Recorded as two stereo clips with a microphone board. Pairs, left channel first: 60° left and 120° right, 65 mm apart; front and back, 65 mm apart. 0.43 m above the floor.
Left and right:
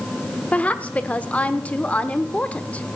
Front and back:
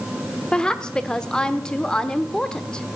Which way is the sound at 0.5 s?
55° left.